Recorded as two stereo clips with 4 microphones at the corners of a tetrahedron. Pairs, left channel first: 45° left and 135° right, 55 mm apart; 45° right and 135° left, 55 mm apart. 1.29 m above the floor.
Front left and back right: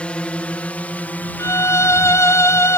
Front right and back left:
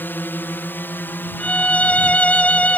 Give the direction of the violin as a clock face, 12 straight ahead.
11 o'clock.